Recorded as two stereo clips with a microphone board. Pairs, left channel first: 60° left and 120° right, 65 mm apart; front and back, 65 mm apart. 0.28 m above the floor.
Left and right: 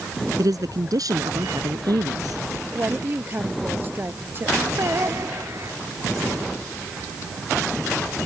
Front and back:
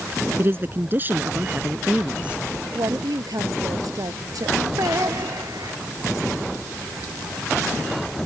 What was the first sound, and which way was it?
A man speaking, 130° right.